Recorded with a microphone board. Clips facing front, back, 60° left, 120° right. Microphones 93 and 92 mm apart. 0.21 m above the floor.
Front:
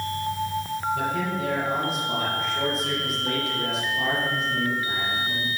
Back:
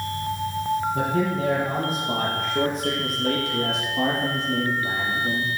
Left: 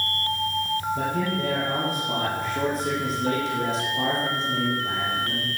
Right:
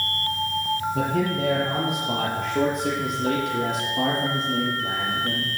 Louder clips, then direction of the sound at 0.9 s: Back 3 dB, right 2 dB; 130° right.